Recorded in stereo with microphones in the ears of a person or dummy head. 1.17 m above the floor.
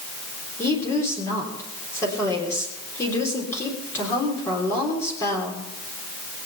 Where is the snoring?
I don't hear snoring.